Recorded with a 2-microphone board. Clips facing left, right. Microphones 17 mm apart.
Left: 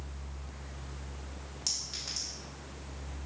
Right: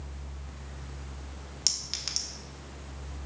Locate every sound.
1.7 s a clink: 50° right (ahead or behind), 0.5 m